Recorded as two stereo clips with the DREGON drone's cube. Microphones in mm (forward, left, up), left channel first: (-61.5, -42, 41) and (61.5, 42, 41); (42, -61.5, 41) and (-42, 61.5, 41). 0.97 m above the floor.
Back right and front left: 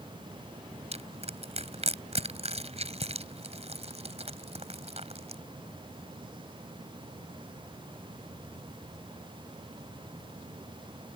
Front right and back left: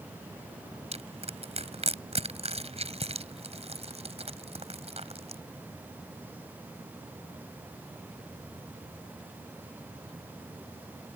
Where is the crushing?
80° left.